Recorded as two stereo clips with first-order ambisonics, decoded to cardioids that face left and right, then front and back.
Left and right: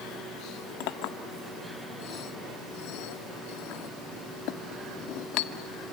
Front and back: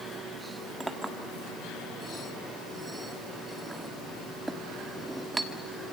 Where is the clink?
95° left, 1.6 m.